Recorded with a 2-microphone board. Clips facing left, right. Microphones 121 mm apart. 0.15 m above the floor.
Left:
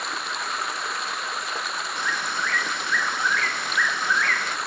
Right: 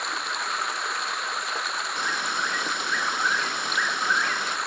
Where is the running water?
Centre (ahead or behind).